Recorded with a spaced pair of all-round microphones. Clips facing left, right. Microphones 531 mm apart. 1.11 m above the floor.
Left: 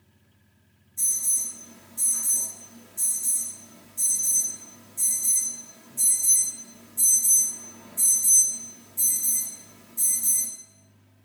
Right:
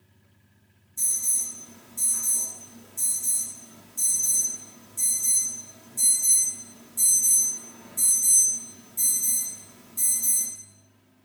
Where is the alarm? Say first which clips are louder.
Right 1 dB; 20° right (ahead or behind), 1.2 m.